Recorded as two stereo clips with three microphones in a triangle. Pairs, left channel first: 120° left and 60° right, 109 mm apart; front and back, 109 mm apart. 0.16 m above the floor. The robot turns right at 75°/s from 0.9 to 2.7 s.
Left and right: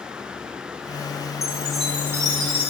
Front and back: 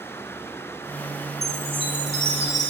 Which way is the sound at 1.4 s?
Straight behind.